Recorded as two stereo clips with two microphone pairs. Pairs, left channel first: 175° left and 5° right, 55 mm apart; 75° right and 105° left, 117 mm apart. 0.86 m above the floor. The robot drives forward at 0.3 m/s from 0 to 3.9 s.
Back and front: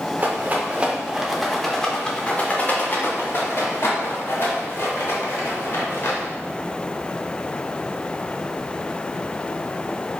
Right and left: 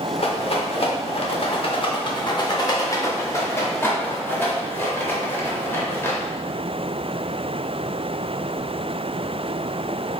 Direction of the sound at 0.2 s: 50° right.